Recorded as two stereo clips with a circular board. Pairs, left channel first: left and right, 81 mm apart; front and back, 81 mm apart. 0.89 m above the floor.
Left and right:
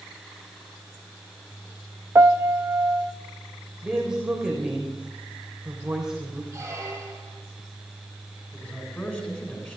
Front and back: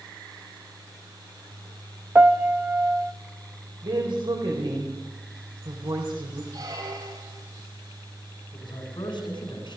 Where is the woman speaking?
170° right, 3.5 m.